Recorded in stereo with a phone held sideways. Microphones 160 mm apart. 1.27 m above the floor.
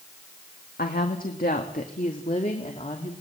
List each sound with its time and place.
0.8 s a woman speaking: 80° left, 1.9 m; by 3.1 s 45° left (ahead or behind), 3 m